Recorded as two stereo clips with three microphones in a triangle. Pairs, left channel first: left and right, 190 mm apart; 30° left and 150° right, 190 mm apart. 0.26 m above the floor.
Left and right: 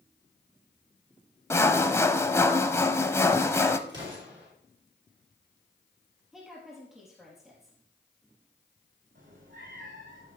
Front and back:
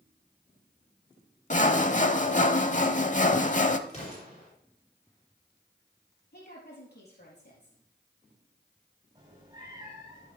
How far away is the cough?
I don't hear a cough.